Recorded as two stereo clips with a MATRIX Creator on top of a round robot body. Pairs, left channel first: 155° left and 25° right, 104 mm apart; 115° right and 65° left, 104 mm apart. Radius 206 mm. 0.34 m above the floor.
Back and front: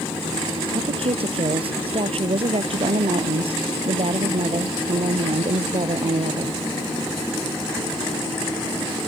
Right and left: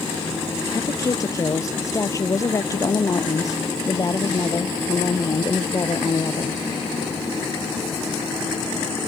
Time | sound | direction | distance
0.7 | a woman speaking | 50° right | ?